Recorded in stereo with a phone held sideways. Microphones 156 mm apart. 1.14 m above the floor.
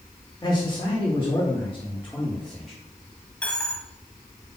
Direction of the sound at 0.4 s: 25° left (ahead or behind).